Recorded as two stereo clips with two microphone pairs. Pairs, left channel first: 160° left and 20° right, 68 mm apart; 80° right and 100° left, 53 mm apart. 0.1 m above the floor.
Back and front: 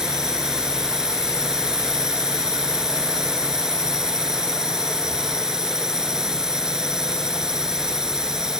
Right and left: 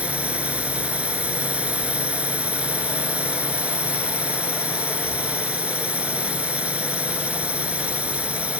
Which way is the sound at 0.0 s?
55° left.